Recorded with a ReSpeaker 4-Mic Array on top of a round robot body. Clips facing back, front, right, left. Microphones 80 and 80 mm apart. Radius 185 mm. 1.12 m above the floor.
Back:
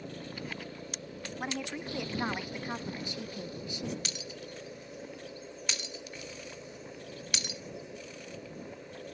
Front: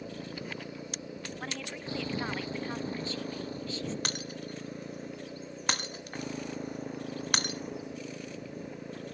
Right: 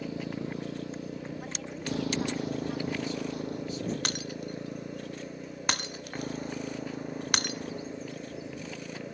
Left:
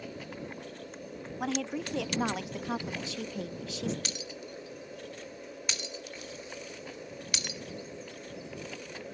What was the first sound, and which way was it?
A motorcycle, 85° right.